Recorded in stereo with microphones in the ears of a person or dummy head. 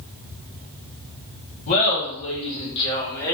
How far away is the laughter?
About 1.8 m.